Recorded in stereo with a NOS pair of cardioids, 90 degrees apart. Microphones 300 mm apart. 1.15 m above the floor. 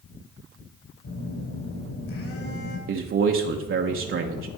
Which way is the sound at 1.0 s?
50° left.